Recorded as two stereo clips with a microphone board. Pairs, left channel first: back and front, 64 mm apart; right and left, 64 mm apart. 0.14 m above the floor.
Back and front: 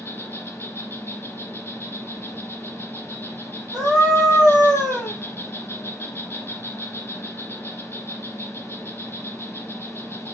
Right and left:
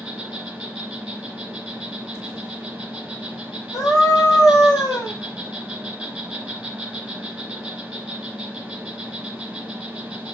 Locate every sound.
0.0 s an insect: 150° left, 1.9 m
3.7 s a scream: 85° right, 4 m